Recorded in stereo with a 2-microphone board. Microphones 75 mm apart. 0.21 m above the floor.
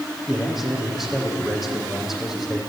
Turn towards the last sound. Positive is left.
turn(degrees=-5)  # may be behind; listen again after turning